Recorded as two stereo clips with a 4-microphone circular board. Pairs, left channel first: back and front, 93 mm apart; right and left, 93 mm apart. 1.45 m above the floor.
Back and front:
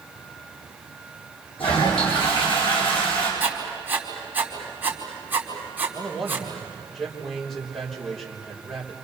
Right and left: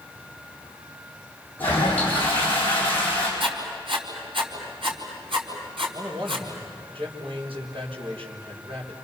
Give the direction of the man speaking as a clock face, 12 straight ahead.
9 o'clock.